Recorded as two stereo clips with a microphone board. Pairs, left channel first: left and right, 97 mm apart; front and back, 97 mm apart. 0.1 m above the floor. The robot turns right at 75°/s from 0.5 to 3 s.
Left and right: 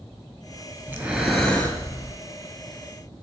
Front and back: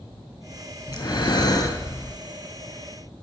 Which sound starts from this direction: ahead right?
Breathing, at 0.9 s.